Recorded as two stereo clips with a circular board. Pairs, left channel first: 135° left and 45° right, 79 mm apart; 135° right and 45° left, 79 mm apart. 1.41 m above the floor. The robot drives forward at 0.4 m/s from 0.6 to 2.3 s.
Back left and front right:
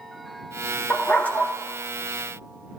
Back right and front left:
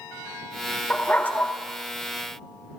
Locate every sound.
0.9 s a dog barking: 175° right, 0.9 m